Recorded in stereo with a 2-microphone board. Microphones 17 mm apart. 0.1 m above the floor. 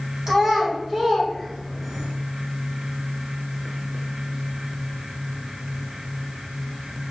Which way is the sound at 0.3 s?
20° right (ahead or behind).